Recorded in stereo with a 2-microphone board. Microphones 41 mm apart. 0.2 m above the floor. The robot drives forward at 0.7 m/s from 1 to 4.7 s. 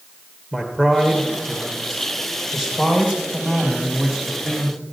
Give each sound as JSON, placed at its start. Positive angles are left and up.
{"t": 0.5, "sound": "a man speaking", "side_deg": 15, "distance_m": 3.0}